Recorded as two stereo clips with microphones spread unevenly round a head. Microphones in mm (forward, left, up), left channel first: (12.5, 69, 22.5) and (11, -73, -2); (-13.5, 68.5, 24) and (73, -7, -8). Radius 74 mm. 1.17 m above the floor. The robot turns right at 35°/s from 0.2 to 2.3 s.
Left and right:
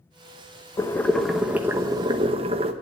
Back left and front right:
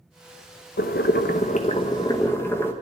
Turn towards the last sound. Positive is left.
turn(degrees=-145)